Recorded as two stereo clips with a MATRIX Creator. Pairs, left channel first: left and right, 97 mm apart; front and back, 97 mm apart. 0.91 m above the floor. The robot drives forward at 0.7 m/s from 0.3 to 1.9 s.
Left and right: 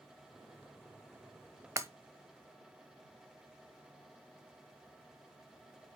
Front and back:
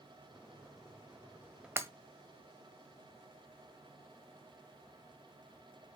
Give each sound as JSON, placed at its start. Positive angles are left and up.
{"t": 1.8, "sound": "breaking glass", "azimuth_deg": -130, "distance_m": 0.9}